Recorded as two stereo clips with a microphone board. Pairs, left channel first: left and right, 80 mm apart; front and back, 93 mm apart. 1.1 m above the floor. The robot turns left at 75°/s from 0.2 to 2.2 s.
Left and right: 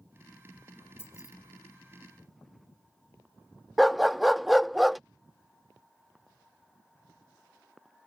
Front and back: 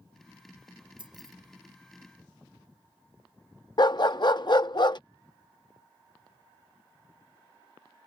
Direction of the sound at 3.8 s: Straight ahead.